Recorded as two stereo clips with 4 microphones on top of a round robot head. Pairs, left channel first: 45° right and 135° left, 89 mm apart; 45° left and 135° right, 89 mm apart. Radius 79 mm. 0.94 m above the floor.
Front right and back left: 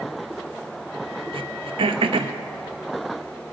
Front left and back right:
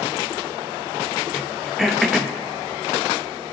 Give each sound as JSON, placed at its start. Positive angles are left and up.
{"t": 1.3, "sound": "throat clearing", "azimuth_deg": 135, "distance_m": 0.8}